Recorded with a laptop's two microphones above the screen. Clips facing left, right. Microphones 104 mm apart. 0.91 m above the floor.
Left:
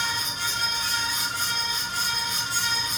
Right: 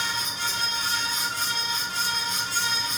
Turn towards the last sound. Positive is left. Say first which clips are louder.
# even
turn(degrees=-30)  # may be behind; listen again after turning